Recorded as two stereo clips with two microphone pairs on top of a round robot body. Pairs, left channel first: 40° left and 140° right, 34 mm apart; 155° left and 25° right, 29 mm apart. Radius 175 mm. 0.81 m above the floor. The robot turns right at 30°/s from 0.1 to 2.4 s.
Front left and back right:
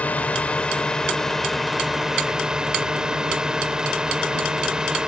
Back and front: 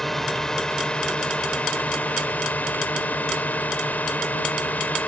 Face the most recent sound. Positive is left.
turn(degrees=150)